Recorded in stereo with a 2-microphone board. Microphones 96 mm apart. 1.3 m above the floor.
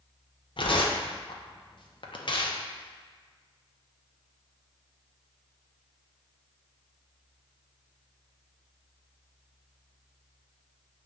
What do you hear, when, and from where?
0.6 s tearing paper: 55° left (ahead or behind), 0.5 m